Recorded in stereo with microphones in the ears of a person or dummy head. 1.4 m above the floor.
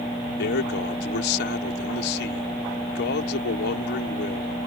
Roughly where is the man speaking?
Left.